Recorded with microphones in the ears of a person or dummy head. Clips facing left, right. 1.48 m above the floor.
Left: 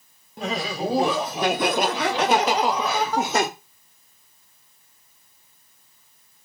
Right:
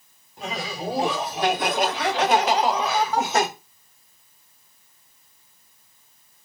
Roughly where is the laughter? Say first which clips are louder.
Left 5 dB; left.